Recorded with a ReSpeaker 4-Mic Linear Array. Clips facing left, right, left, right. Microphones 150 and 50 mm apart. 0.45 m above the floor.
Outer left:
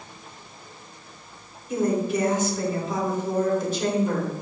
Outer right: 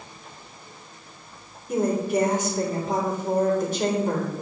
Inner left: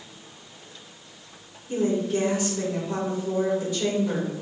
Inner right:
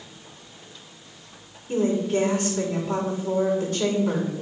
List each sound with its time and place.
1.7 s a woman speaking: 55° right (ahead or behind), 3.5 m